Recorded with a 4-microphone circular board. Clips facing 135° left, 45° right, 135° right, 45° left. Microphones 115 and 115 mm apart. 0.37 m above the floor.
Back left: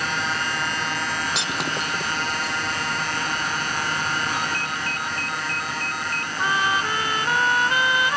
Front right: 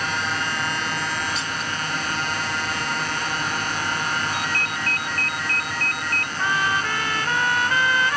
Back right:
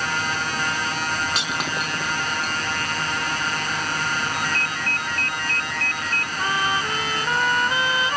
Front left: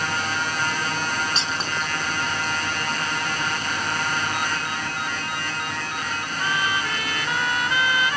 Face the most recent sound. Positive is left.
turn(degrees=-160)